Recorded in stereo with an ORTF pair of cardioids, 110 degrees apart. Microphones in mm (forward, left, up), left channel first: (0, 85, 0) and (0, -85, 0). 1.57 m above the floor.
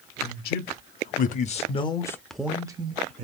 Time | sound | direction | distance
0.2 | a man speaking | 70° left | 1.2 m